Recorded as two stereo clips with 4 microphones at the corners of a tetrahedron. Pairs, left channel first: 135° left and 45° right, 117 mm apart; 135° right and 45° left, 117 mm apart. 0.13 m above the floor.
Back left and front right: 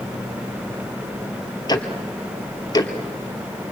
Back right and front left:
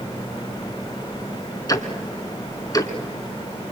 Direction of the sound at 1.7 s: 175° left.